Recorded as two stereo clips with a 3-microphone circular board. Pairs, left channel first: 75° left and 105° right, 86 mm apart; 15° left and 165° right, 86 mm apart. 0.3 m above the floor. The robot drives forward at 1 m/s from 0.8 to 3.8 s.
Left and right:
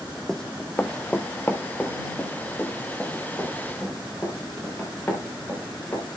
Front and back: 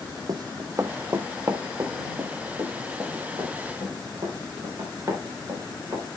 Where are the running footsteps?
160° left, 0.7 m; by 6.1 s 140° left, 5 m.